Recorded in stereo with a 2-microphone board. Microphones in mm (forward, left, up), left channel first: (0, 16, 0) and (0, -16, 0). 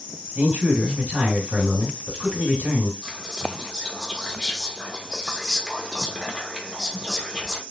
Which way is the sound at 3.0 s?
15° left (ahead or behind).